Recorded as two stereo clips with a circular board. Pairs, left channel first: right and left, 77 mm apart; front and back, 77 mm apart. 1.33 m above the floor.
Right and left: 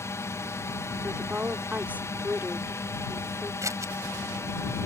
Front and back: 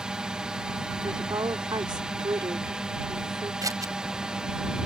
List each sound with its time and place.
0.0 s a drone: 105° right
1.0 s a woman speaking: 160° left
3.6 s scissors: 140° left